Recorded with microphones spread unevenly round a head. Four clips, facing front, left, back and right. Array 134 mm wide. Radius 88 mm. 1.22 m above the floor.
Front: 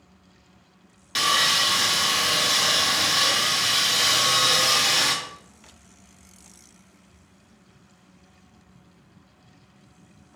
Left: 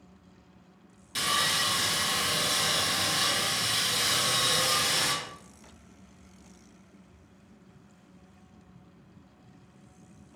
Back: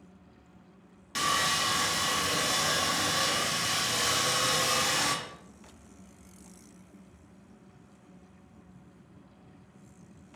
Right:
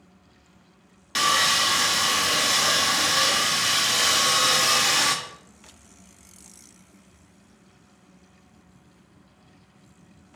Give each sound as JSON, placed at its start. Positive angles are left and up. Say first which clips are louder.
{"t": 1.1, "sound": "sawing", "louder": "right 7 dB, front 5 dB", "azimuth_deg": -65, "distance_m": 1.4}